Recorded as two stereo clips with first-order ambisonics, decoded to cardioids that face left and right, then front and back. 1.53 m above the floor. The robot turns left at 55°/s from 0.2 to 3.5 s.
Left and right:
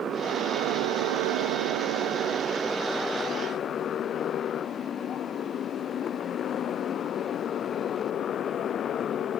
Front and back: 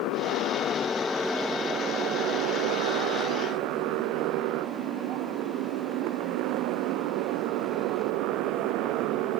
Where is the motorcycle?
30° right; by 9.4 s 150° left.